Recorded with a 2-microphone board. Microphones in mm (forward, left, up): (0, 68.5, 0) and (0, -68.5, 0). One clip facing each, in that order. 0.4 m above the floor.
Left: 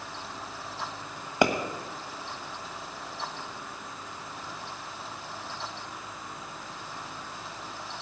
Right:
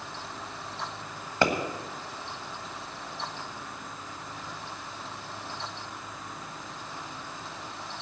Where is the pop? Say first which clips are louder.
Left 2 dB; 15° left (ahead or behind), 1.3 m.